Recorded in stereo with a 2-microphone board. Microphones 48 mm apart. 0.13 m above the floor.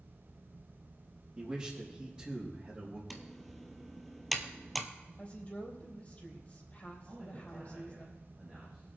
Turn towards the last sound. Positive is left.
turn(degrees=-15)  # may be behind; listen again after turning